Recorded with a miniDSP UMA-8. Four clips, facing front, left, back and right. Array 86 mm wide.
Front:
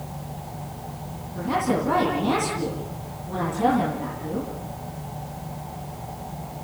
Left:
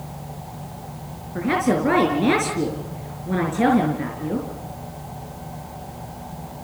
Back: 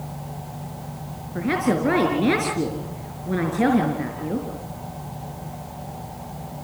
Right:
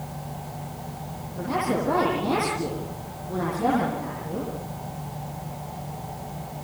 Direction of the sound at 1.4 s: 130° left.